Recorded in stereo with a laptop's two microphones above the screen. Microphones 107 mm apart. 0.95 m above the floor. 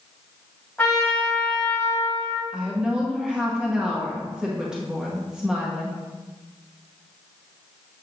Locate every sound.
0.8 s a trumpet: 15° left (ahead or behind), 2.5 m
2.5 s a woman speaking: 5° right (ahead or behind), 0.9 m